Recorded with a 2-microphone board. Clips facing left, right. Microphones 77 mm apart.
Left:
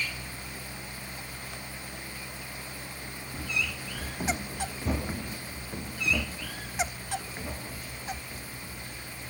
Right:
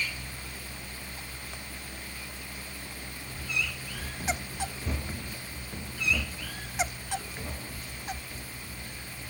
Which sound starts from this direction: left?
Running footsteps, at 3.3 s.